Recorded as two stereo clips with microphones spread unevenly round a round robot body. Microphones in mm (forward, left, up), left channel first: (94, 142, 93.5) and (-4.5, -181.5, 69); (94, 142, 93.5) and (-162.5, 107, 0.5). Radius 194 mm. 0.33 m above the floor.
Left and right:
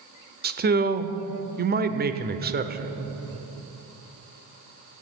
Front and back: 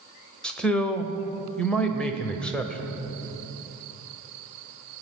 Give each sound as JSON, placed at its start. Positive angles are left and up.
{"t": 0.4, "sound": "a man speaking", "azimuth_deg": -115, "distance_m": 1.2}